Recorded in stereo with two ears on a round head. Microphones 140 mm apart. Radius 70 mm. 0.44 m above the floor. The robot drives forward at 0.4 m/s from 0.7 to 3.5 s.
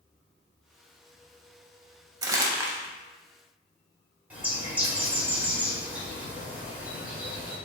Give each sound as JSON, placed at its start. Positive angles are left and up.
{"t": 2.2, "sound": "crumpling", "side_deg": -25, "distance_m": 0.6}
{"t": 4.3, "sound": "a bird", "side_deg": -10, "distance_m": 1.0}